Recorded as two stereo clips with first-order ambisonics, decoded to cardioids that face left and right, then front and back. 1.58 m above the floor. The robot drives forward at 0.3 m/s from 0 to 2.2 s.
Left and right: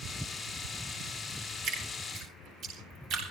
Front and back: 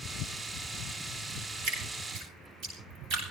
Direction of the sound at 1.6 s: 135° right.